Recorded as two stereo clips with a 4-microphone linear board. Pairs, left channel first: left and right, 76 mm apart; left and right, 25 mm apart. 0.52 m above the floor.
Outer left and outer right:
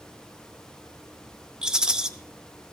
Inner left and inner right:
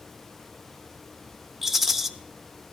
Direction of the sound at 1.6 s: 10° right (ahead or behind).